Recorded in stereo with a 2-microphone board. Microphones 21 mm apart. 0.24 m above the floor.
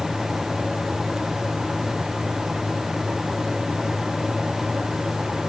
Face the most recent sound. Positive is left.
No sound to turn to.